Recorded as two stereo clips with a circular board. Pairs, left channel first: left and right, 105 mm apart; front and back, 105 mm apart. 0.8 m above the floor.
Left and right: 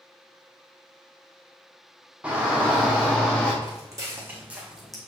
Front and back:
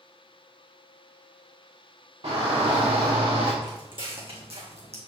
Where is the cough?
No cough in this recording.